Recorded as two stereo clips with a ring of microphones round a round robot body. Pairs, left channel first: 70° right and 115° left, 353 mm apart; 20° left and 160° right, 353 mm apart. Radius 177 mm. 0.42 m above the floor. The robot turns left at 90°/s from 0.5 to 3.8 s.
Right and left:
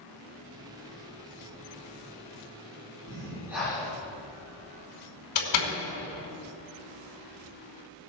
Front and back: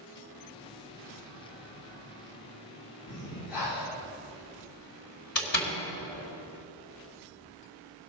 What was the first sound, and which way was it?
Breathing, 70° left.